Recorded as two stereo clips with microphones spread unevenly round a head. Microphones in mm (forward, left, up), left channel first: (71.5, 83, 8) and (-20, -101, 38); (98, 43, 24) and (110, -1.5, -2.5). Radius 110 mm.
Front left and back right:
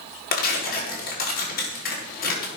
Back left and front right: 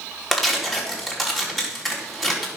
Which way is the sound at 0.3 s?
20° left.